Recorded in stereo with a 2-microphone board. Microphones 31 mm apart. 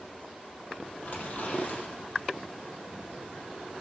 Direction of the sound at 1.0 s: 45° left (ahead or behind).